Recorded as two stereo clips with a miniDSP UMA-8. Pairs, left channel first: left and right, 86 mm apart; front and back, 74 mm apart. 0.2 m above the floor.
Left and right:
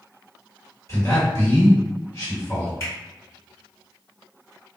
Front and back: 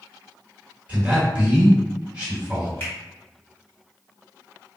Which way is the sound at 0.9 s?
115° left.